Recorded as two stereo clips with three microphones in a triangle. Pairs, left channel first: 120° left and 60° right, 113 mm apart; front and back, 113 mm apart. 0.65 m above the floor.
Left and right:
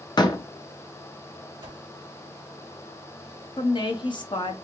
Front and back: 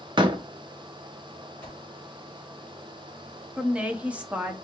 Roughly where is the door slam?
Behind left.